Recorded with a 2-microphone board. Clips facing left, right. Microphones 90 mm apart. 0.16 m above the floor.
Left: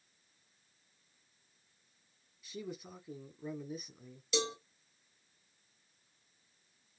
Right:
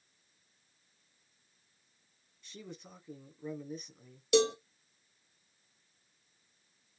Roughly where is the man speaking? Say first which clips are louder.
Left 5 dB; centre.